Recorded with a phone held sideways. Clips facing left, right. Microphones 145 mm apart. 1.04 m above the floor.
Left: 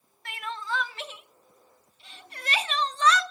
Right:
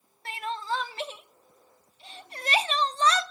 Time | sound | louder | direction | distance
0.2 | crying | right 3 dB | 35° right (ahead or behind) | 0.5 m